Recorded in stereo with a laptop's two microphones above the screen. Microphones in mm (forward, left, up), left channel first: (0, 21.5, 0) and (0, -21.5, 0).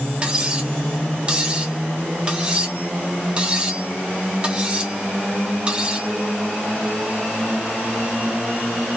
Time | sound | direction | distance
0.2 | cutlery clinking | 25° right (ahead or behind) | 0.9 m